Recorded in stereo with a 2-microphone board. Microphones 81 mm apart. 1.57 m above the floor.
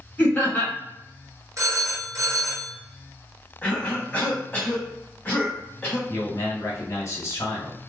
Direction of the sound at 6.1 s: 40° left (ahead or behind).